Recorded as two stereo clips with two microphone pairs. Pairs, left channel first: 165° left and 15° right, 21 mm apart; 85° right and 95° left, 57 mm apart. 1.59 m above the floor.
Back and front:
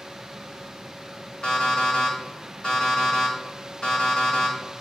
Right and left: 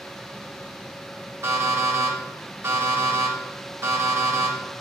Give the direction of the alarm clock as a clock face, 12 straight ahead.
8 o'clock.